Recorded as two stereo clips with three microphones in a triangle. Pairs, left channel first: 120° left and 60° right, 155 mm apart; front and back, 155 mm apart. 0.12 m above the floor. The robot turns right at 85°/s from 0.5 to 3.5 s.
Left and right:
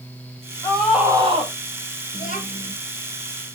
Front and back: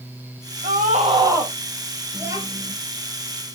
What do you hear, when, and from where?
0.6 s a scream: 170° right, 3.5 m; by 1.5 s 90° right, 3.5 m
2.1 s a child speaking: 100° left, 1.9 m; by 2.7 s 150° left, 1.9 m